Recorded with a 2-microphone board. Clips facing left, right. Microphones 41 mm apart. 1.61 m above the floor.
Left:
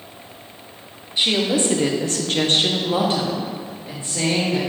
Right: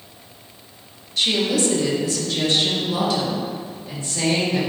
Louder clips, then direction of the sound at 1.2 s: Left 1 dB; 20° left (ahead or behind).